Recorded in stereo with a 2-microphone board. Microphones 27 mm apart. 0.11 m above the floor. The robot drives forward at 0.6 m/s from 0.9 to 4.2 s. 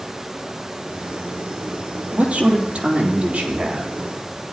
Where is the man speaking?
50° right (ahead or behind), 3.5 m; by 3.9 s 40° right (ahead or behind), 4 m.